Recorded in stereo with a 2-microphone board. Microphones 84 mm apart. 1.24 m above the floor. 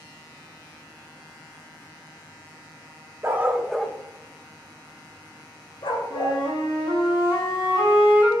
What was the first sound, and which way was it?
A dog barking, 30° right (ahead or behind).